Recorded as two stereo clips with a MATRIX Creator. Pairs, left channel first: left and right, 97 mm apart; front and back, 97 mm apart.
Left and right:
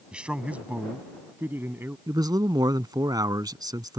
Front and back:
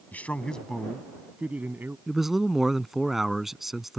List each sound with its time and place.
0.1 s a man speaking: 30° right; by 2.0 s 135° right
2.1 s a man speaking: 95° right